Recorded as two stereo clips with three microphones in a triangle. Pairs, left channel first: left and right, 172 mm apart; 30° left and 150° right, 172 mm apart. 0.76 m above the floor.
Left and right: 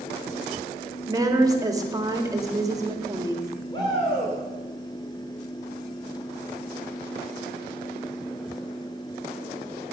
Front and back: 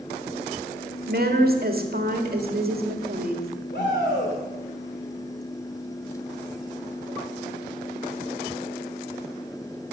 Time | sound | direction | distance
1.1 | a woman speaking | 160° right | 1.6 m
3.7 | a shout | 30° left | 2.5 m